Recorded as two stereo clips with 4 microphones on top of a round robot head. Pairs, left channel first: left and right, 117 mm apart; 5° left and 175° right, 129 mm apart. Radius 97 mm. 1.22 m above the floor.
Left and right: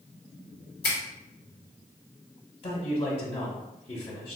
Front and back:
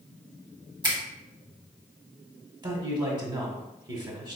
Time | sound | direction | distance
0.8 | a finger snap | 130° left | 1.2 m
2.6 | a man speaking | 130° left | 1.2 m